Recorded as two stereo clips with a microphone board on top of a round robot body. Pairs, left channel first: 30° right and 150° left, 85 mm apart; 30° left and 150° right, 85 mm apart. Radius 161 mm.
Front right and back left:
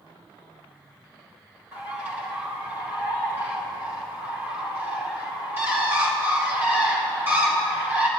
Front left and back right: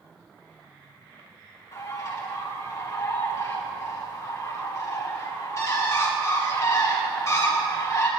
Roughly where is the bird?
Left.